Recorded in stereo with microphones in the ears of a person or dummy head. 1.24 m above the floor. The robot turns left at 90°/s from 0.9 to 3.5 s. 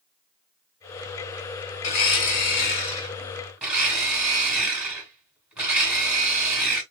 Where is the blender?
140° left, 1.5 m; by 6.8 s 10° right, 1.5 m.